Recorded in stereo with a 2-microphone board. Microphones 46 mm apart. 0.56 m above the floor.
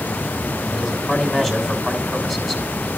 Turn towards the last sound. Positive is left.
turn(degrees=15)  # may be behind; listen again after turning